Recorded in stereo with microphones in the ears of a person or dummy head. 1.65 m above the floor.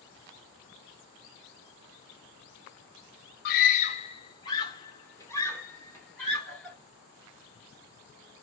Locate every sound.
3.5 s a scream: 50° left (ahead or behind), 0.6 m; by 6.8 s 5° left (ahead or behind), 3 m